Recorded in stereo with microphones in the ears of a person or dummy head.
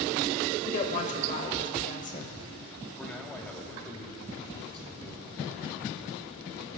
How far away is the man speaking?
About 1.2 m.